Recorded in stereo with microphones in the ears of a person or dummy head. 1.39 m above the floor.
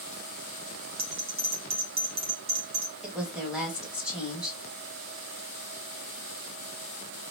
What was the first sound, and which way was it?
A bell, 25° right (ahead or behind).